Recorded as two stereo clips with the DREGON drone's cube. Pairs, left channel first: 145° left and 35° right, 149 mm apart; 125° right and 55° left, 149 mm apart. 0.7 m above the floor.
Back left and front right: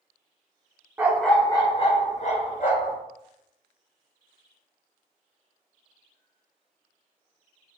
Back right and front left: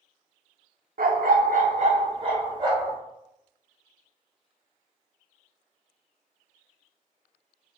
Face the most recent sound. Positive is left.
turn(degrees=120)